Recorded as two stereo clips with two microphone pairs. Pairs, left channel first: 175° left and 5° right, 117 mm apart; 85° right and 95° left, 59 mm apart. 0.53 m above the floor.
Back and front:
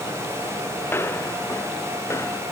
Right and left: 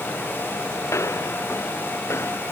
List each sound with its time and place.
0.9 s footsteps: 115° right; by 2.4 s 120° right